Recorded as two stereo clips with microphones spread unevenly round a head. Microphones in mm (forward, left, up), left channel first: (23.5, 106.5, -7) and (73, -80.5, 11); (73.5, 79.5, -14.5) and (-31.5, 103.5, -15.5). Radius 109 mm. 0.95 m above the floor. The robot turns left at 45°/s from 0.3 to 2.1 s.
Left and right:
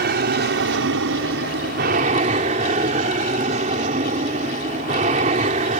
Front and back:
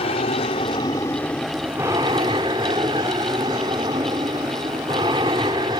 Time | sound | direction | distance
0.0 | an aircraft | 50° right | ?